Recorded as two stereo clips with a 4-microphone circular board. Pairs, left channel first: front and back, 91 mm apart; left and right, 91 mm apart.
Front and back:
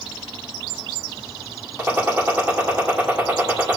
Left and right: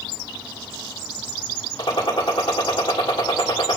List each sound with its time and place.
1.8 s a gunshot: 110° left, 1.8 m